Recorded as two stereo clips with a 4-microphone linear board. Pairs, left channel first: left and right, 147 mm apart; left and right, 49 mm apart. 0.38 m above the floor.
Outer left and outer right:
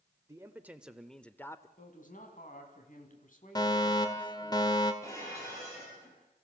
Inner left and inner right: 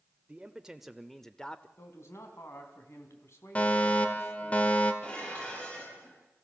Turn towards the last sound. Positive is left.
turn(degrees=20)  # may be behind; listen again after turning